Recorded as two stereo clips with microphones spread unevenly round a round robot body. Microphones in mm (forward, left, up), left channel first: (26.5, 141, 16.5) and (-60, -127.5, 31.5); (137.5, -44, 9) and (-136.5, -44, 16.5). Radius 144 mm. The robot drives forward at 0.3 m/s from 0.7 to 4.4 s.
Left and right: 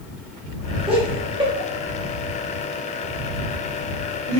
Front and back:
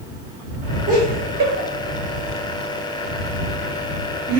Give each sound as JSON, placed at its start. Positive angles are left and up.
{"t": 0.9, "sound": "laughter", "azimuth_deg": -160, "distance_m": 1.3}